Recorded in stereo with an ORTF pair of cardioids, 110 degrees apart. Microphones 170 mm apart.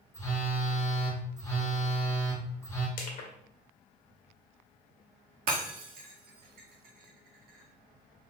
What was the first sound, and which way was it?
A phone buzzing, 20° left.